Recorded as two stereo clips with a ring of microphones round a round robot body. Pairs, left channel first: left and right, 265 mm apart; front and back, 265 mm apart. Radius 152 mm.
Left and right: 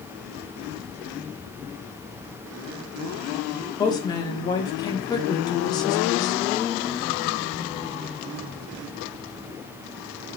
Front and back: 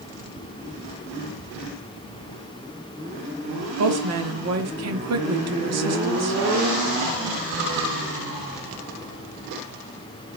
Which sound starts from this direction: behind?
A woman speaking, at 3.8 s.